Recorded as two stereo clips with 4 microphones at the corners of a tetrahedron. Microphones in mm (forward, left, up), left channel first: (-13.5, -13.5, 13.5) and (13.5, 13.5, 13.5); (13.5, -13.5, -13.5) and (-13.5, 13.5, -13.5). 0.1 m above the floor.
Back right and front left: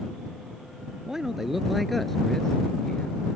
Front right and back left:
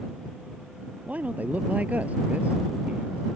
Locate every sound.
1.1 s a man speaking: 110° left; by 3.2 s 175° left